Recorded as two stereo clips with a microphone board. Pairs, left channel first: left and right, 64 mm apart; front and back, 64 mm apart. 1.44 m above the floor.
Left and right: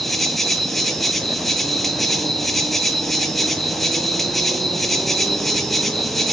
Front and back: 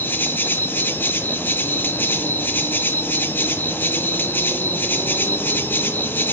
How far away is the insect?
About 0.9 m.